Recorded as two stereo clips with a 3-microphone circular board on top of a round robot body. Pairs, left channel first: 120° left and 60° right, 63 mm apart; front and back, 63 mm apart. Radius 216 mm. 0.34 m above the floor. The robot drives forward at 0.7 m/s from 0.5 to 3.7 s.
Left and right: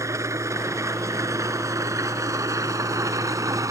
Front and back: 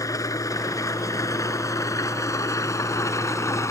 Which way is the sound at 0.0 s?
25° right.